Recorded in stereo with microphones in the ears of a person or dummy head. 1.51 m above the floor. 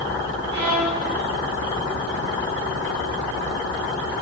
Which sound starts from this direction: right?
A violin, at 0.5 s.